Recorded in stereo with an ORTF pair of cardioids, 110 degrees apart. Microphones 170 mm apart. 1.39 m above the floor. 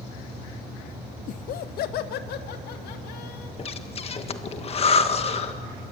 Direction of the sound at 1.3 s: 50° left.